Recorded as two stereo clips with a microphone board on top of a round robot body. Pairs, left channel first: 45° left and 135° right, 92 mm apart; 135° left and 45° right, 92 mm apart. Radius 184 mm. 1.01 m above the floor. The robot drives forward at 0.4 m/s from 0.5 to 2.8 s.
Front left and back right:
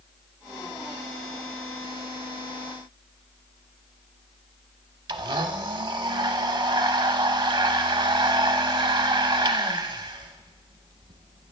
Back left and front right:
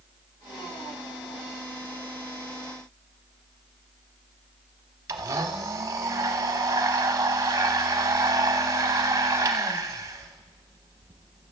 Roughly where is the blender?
Right.